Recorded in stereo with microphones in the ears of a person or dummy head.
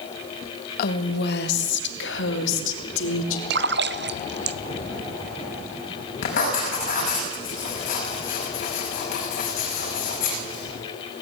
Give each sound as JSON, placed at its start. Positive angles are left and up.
{"t": 0.8, "sound": "a woman speaking", "side_deg": 55, "distance_m": 1.8}
{"t": 3.5, "sound": "a splash", "side_deg": -60, "distance_m": 0.5}
{"t": 6.2, "sound": "writing", "side_deg": 45, "distance_m": 6.0}